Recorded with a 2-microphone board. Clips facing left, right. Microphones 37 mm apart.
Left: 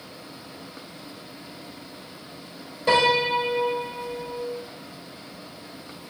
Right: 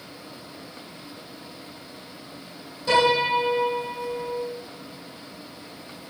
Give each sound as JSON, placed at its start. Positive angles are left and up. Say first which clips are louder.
{"t": 2.9, "sound": "a piano", "louder": "even", "side_deg": 50, "distance_m": 1.7}